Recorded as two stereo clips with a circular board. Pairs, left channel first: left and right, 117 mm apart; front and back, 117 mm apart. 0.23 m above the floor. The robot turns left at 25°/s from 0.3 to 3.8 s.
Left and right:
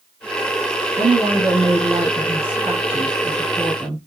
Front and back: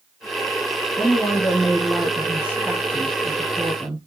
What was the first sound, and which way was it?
A woman speaking, 65° right.